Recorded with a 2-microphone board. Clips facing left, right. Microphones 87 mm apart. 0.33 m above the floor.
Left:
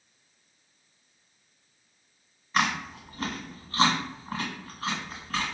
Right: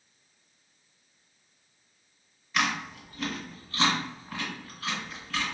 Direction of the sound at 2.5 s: 40° left (ahead or behind).